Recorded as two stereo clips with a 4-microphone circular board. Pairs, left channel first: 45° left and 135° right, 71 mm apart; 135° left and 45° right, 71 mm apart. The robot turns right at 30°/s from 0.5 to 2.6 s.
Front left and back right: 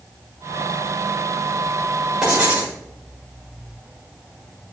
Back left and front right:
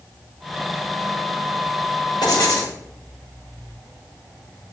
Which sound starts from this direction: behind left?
Writing, at 2.2 s.